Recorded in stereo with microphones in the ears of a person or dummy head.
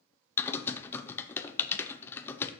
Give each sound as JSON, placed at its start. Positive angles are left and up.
{"t": 0.4, "sound": "typing on a keyboard", "side_deg": 10, "distance_m": 0.5}